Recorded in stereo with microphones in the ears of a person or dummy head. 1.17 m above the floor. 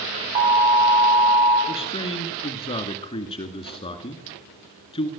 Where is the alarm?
35° right (ahead or behind), 7 m.